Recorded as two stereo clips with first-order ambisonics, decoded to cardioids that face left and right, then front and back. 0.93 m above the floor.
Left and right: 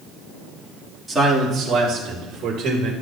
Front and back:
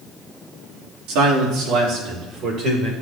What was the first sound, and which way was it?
A man speaking, 175° right.